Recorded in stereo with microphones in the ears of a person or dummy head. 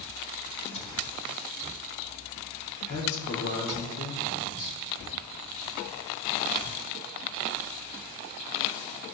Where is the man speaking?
80° left, 5.5 m.